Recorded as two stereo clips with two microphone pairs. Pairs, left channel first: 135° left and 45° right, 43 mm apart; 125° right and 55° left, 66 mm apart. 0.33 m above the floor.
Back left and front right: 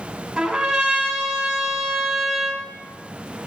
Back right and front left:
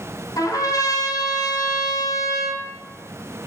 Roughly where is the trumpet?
Behind right.